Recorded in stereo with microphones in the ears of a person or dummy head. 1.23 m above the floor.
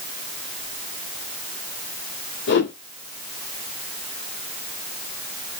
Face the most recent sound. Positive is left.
turn(degrees=65)  # may be behind; listen again after turning